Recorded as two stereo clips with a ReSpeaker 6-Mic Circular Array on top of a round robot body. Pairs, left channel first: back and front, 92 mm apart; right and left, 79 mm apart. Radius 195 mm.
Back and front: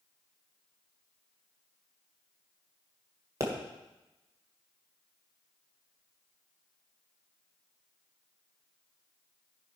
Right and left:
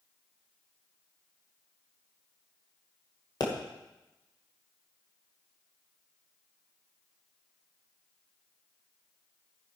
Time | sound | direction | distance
3.4 | a pop | 55° right | 2.0 m